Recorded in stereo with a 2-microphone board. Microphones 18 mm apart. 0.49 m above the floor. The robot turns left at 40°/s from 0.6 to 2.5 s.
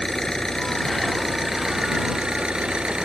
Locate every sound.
0.0 s an engine running: 20° left; by 3.0 s 55° right